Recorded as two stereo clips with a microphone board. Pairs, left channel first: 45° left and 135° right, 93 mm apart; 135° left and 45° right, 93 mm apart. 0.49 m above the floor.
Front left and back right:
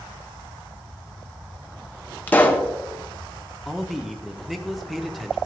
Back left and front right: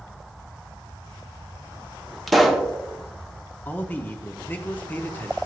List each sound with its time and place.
2.3 s a pop: 50° left, 0.9 m
3.6 s a man speaking: 135° left, 0.8 m